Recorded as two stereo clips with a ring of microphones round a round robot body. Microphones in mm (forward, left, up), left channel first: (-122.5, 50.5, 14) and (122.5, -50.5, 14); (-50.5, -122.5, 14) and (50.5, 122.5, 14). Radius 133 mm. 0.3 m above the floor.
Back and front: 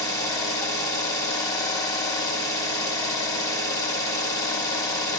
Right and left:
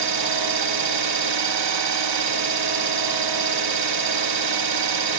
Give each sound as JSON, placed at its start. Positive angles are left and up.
{"t": 0.0, "sound": "an engine running", "azimuth_deg": 80, "distance_m": 0.9}